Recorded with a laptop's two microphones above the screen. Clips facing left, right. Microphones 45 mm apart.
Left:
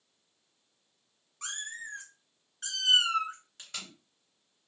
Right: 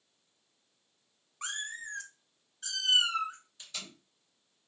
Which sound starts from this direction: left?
Tape being pulled, at 3.6 s.